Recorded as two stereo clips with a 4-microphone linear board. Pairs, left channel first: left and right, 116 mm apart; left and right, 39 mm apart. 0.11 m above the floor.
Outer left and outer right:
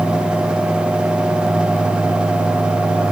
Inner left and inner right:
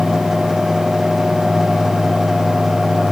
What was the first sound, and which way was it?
Only background noise.